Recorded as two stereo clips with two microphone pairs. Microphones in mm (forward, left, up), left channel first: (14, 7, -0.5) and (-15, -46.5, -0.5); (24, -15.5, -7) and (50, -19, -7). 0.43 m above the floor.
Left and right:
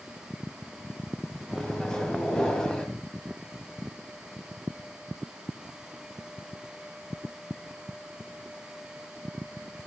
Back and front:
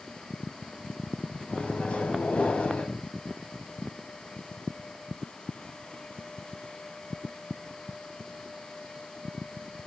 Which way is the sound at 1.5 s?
140° left.